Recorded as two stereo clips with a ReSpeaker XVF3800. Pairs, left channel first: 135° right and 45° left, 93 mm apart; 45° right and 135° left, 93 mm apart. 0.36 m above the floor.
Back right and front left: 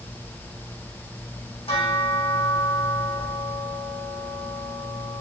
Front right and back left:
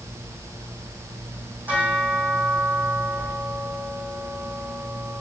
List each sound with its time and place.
1.7 s a bell: 150° right, 4.5 m